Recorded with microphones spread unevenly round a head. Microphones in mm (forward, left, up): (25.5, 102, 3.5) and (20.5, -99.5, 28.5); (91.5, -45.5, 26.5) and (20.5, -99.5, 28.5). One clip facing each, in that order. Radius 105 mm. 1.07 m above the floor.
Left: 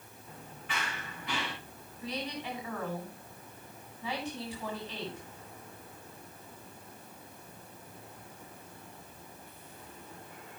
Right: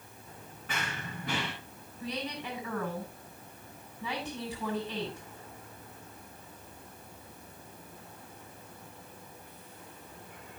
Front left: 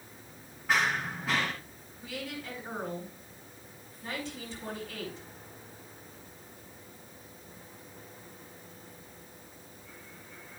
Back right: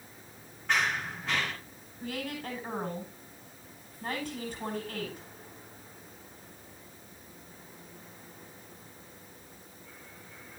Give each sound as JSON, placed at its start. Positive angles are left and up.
{"t": 0.7, "sound": "running footsteps", "azimuth_deg": -45, "distance_m": 5.0}
{"t": 2.0, "sound": "a woman speaking", "azimuth_deg": -110, "distance_m": 8.5}